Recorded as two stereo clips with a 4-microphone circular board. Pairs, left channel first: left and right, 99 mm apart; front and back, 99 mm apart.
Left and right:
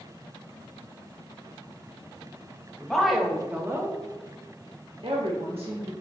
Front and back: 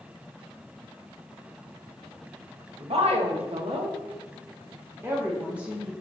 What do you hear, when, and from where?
2.8 s a woman speaking: 175° left, 1.4 m; by 5.9 s 95° right, 1.8 m